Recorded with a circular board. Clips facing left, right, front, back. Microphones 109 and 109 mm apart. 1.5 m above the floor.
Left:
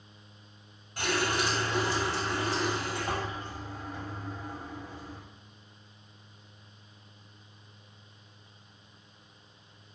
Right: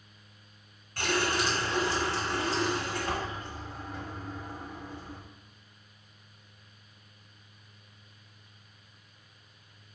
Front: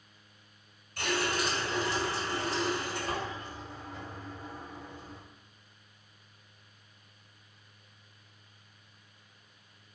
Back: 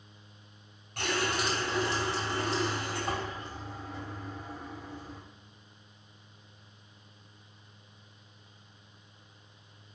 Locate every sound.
1.0 s a running tap: 160° left, 2 m